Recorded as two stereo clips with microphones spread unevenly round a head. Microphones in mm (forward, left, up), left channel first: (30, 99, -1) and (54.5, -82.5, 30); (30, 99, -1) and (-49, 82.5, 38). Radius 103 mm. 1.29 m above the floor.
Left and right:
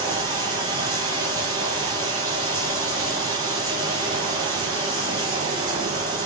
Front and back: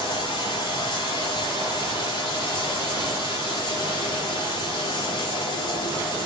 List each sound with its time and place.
0.0 s running water: 15° right, 3 m